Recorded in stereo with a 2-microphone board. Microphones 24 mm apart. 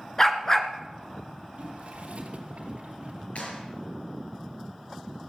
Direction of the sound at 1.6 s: 65° right (ahead or behind).